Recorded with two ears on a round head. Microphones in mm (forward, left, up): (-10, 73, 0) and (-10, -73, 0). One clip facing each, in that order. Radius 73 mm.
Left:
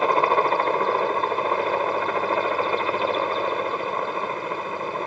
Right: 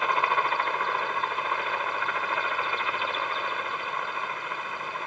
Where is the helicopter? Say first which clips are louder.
Left 7 dB; 35° left (ahead or behind).